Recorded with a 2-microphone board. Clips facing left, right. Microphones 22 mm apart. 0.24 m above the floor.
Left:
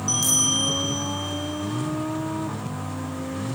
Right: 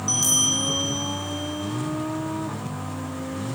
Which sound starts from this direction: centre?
A bell, at 0.1 s.